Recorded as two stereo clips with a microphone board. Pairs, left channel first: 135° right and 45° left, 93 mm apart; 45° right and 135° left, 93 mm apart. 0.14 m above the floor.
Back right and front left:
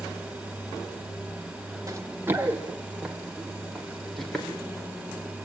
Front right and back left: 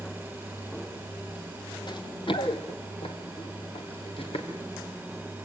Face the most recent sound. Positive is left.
turn(degrees=-50)